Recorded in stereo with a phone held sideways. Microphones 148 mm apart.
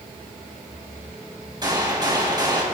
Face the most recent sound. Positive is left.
turn(degrees=-30)  # may be behind; listen again after turning